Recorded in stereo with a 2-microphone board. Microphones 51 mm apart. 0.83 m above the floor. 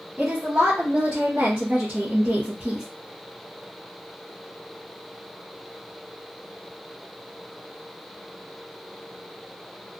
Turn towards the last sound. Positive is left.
turn(degrees=-15)  # may be behind; listen again after turning